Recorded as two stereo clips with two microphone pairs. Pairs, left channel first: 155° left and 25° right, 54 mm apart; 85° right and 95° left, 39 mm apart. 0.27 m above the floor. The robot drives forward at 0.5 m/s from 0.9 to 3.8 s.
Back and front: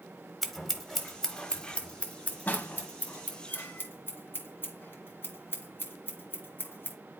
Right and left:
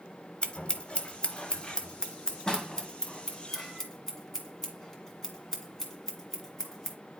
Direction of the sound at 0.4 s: 115° right.